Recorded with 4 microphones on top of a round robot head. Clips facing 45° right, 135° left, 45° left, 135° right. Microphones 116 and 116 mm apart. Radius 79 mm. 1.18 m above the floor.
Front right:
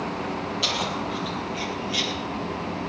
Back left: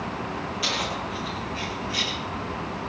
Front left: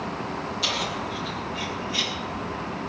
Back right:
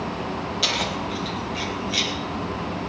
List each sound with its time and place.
0.6 s keys jangling: 110° right, 5.5 m; by 2.1 s 120° right, 5.5 m